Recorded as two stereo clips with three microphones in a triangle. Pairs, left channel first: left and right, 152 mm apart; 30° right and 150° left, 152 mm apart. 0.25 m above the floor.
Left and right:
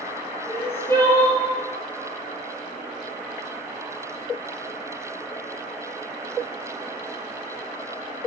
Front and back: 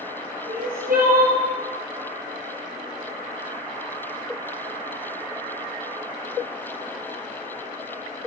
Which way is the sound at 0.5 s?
165° left.